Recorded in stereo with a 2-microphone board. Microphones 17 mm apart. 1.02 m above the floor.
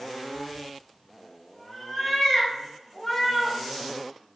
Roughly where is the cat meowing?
Centre.